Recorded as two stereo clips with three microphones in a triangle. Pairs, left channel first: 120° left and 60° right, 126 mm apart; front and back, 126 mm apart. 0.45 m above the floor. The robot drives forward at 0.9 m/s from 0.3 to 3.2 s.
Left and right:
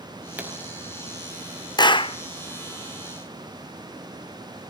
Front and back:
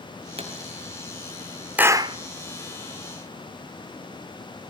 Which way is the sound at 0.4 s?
140° right.